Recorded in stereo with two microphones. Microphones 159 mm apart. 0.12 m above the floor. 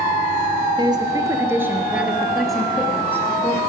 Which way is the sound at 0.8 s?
30° right (ahead or behind).